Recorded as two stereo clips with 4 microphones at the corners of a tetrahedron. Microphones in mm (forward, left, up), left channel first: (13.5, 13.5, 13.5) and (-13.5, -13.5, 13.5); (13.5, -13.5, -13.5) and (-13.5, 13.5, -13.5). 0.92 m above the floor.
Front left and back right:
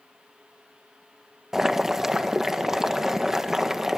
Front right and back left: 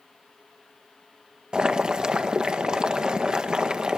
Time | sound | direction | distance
1.5 | boiling | 165° left | 0.9 m